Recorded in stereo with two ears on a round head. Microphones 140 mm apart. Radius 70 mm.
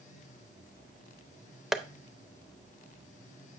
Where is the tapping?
Centre (ahead or behind), 0.5 m.